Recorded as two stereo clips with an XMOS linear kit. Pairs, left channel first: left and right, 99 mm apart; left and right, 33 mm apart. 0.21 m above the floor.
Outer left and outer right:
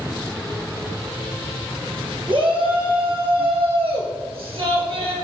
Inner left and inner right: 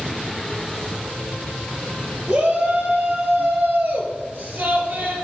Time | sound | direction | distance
2.3 | a shout | 60° right (ahead or behind) | 4.5 m